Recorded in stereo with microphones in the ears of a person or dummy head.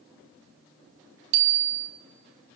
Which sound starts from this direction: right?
A bicycle bell, at 1.3 s.